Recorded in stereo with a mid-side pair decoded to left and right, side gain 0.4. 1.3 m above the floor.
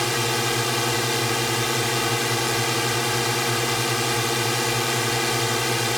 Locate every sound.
0.0 s a drone: 5° left